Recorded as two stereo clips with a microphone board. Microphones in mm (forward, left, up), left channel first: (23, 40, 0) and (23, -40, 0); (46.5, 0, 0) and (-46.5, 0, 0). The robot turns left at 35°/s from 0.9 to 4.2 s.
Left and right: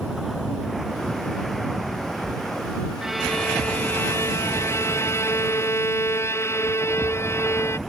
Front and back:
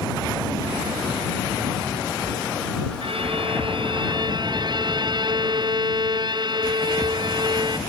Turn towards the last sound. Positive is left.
turn(degrees=145)